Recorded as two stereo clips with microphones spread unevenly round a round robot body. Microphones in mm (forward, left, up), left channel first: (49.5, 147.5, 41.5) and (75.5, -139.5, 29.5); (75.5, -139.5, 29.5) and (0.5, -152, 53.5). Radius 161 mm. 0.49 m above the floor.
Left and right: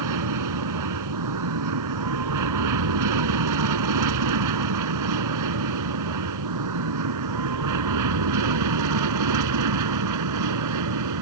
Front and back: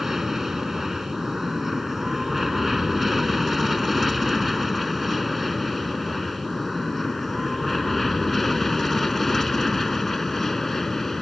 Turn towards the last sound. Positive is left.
turn(degrees=-75)